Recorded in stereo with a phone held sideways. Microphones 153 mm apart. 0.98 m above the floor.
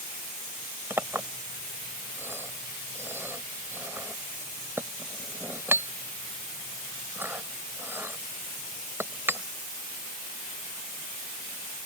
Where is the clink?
15° right (ahead or behind).